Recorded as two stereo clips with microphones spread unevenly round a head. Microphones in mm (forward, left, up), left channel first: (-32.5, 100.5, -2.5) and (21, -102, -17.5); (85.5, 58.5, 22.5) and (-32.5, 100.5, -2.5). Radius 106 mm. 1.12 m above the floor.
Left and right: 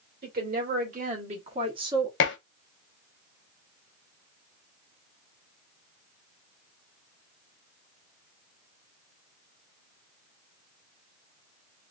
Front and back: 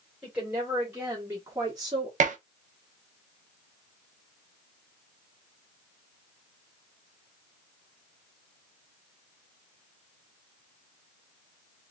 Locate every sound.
0.2 s a woman speaking: 120° right, 1.8 m; by 2.1 s 145° right, 1.0 m
2.2 s dishes clattering: 140° left, 0.7 m